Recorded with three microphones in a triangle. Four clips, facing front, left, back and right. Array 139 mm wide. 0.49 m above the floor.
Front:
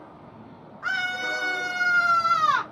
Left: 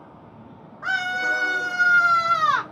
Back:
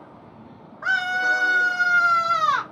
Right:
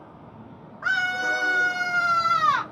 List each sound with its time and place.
0.8 s a scream: 150° right, 1.0 m; by 2.6 s 80° left, 0.9 m